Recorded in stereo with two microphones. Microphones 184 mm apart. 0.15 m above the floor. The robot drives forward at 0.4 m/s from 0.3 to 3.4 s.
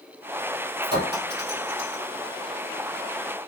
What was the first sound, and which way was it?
A clink, 65° right (ahead or behind).